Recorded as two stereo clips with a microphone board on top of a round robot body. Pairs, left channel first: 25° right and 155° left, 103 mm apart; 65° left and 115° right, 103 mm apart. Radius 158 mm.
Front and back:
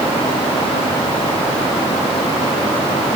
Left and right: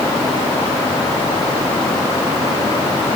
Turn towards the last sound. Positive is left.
No sound to turn to.